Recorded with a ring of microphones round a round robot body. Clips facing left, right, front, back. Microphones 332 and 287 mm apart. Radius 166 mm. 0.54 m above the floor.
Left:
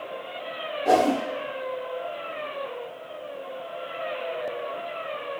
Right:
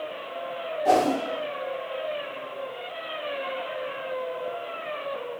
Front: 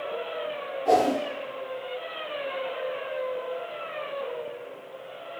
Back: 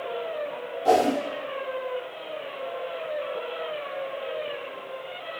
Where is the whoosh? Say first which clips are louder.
Left 1 dB, back 1 dB; 160° right, 0.7 m.